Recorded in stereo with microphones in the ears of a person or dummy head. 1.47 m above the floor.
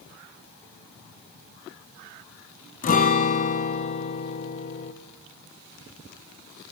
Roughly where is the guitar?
Left.